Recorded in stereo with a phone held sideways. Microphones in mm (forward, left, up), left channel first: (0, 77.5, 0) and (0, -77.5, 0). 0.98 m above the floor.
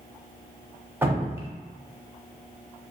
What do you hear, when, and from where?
1.0 s dripping: 15° right (ahead or behind), 0.5 m